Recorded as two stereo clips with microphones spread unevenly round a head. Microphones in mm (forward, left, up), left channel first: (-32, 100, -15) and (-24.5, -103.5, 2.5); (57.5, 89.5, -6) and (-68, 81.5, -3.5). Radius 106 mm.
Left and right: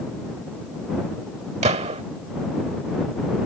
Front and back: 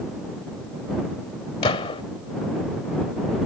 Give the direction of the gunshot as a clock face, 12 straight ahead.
1 o'clock.